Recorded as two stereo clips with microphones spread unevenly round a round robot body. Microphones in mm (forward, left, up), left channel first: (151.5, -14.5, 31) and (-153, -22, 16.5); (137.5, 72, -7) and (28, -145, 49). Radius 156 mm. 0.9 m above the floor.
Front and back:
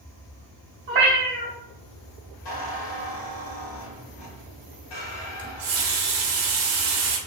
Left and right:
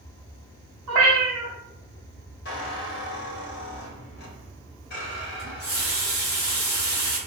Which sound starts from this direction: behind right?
A cat meowing, at 0.9 s.